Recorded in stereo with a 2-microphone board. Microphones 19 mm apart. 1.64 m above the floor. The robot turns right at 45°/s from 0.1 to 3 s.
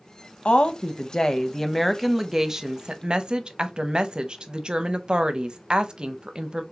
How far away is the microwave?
I don't hear a microwave.